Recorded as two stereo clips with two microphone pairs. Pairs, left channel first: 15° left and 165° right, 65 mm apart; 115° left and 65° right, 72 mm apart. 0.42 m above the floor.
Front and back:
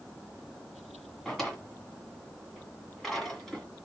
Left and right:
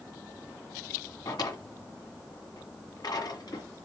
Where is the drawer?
100° left, 1.7 m.